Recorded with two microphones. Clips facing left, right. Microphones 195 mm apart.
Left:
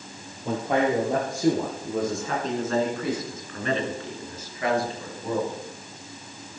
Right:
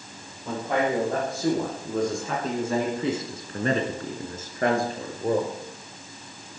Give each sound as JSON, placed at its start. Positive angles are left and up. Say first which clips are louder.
{"t": 0.5, "sound": "a man speaking", "louder": "left 2 dB", "side_deg": 25, "distance_m": 4.0}